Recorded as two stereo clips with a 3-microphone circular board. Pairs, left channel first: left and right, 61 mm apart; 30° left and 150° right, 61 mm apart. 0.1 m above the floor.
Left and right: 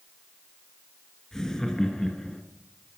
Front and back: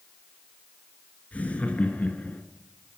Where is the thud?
No thud in this recording.